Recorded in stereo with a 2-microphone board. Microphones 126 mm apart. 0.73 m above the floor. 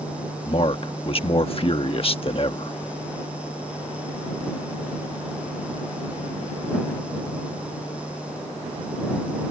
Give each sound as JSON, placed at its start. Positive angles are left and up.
{"t": 0.5, "sound": "a man speaking", "side_deg": 45}